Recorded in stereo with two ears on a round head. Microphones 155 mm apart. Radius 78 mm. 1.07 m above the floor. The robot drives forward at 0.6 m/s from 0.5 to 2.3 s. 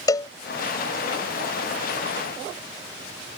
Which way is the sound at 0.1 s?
20° left (ahead or behind).